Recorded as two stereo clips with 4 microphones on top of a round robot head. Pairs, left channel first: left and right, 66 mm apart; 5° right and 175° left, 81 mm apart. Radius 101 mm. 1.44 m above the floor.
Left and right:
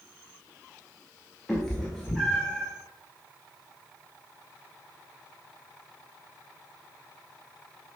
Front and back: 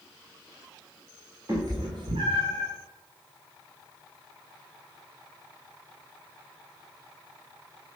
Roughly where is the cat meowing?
Behind.